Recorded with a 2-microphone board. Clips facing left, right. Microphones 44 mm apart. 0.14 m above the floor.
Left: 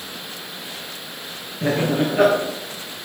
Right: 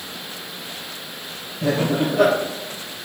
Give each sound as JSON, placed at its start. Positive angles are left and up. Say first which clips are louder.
{"t": 1.6, "sound": "laughter", "louder": "even", "side_deg": 45, "distance_m": 2.5}